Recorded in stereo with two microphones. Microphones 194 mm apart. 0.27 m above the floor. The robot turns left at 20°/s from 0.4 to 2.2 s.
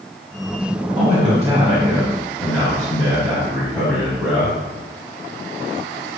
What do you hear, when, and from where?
0.9 s a man speaking: 20° right (ahead or behind), 4 m; by 4.5 s 5° left (ahead or behind), 4 m